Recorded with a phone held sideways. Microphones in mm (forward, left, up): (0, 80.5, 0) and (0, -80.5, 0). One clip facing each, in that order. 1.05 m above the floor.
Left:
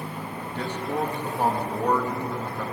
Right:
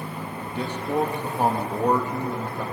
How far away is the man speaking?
About 1.5 m.